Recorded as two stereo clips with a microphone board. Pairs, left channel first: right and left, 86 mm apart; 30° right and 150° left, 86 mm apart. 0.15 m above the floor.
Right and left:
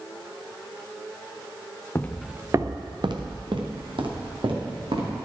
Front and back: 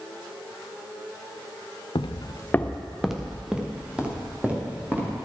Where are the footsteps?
30° right, 0.8 m; by 5.2 s 80° left, 5 m.